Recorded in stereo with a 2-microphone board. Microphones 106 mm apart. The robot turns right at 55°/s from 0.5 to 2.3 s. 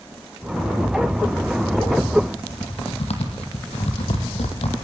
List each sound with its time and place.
2.4 s typing on a keyboard: 80° left, 3 m